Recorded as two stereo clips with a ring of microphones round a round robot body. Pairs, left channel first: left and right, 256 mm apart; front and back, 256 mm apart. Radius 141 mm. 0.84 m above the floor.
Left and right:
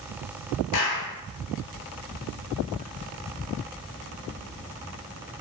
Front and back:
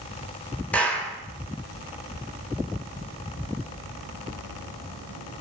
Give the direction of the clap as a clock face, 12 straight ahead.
9 o'clock.